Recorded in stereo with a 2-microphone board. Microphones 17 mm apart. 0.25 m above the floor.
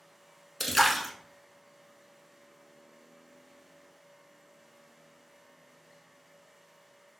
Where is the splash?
Centre (ahead or behind), 0.7 m.